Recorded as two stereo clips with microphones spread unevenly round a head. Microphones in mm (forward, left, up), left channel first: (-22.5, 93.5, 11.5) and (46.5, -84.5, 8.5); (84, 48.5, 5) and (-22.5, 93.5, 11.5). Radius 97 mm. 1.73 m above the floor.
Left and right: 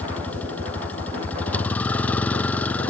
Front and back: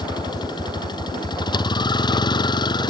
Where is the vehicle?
30° left.